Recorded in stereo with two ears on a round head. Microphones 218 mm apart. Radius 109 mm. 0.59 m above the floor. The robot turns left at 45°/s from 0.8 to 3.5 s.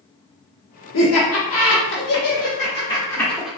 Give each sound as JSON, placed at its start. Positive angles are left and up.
{"t": 0.9, "sound": "laughter", "side_deg": 55, "distance_m": 1.1}